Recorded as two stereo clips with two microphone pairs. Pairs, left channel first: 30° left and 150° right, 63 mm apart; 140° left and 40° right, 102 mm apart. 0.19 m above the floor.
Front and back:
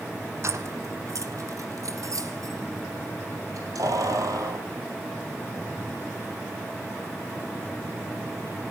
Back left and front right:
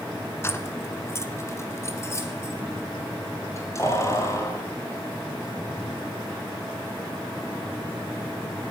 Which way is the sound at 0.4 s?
165° right.